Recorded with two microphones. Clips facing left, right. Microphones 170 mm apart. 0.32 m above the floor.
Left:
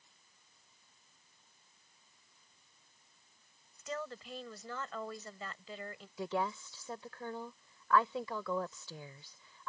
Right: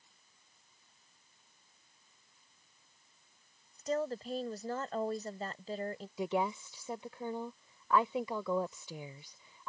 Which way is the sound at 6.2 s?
15° right (ahead or behind).